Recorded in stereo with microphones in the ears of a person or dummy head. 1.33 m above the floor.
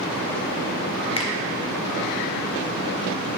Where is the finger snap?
25° left (ahead or behind), 0.8 m.